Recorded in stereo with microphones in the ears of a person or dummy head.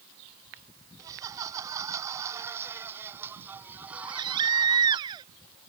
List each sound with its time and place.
1.0 s laughter: 20° right (ahead or behind); by 5.0 s 5° right (ahead or behind)
4.0 s a baby crying: 25° right (ahead or behind)